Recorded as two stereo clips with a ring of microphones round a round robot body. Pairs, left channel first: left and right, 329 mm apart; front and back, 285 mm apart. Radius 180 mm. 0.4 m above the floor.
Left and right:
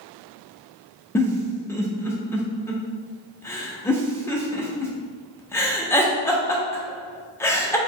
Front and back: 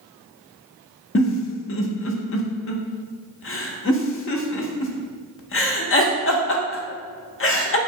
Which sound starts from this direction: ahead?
A giggle, at 1.1 s.